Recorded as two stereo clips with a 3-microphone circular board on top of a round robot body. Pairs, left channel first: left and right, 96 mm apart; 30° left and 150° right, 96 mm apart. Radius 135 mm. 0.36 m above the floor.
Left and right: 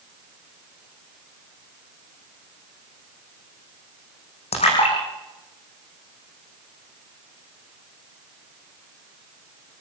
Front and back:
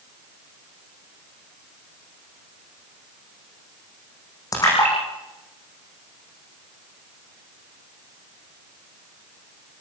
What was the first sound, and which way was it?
A splash, 85° left.